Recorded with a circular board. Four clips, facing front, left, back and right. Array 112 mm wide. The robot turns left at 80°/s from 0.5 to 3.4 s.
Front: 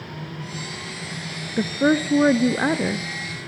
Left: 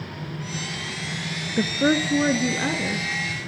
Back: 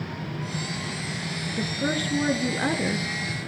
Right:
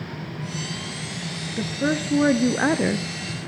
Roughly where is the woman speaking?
Ahead left.